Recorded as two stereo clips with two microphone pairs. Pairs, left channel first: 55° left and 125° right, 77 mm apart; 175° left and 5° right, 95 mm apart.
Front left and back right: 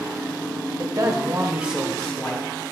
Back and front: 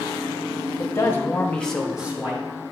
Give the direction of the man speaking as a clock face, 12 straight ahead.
4 o'clock.